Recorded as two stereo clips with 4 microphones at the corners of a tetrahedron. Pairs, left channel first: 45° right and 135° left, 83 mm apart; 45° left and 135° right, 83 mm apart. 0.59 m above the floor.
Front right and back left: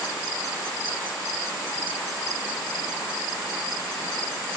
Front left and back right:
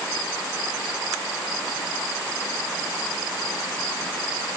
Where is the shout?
I don't hear a shout.